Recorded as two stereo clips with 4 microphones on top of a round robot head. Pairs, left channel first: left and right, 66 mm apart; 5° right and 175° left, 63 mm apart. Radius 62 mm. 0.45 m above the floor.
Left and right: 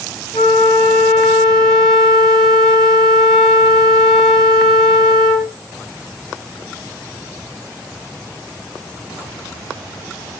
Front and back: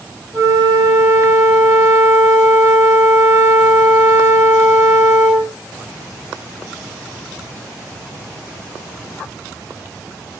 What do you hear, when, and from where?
0.3 s a flute: 170° left, 1.9 m